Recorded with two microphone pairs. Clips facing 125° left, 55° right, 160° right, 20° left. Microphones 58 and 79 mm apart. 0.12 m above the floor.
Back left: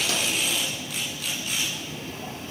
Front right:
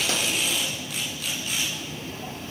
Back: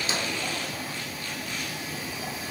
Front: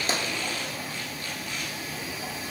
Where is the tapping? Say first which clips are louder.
Front right 1 dB, front 2 dB; 10° right, 0.9 m.